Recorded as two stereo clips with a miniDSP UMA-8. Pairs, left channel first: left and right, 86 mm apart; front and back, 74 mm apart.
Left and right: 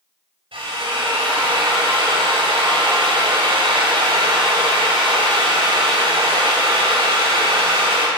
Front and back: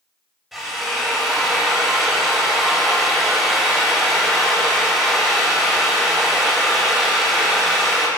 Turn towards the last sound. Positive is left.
turn(degrees=-90)